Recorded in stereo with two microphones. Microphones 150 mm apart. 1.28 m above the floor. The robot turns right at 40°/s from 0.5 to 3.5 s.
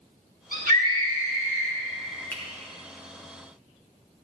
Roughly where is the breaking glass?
I don't hear breaking glass.